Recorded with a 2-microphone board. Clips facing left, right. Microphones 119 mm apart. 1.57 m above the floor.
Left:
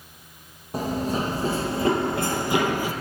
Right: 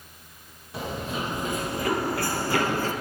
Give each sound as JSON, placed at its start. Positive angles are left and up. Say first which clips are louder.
{"t": 0.7, "sound": "running footsteps", "louder": "left 6 dB", "side_deg": 45, "distance_m": 3.0}